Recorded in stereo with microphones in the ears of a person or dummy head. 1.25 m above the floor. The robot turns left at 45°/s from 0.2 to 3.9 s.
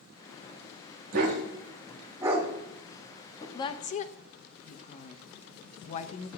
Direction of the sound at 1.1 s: 55° right (ahead or behind).